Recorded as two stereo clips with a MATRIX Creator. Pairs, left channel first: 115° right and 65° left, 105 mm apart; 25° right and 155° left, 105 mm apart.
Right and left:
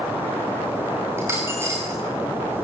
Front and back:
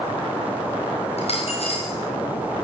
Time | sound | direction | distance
1.2 | a dropped coin | straight ahead | 8 m